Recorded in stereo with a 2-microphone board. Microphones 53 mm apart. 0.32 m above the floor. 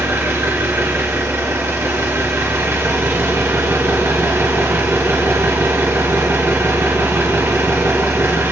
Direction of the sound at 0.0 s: 55° right (ahead or behind).